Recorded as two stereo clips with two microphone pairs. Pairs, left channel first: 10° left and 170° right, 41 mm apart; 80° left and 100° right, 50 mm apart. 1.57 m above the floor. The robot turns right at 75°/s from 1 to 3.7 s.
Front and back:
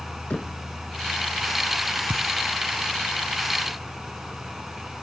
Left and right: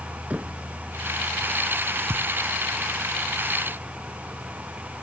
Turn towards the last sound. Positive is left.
turn(degrees=0)